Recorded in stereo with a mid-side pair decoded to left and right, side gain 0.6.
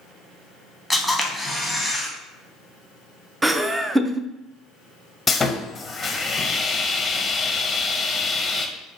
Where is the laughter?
20° right, 0.6 m.